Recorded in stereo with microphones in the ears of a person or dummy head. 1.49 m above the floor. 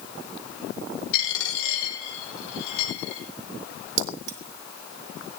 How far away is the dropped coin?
About 7.5 m.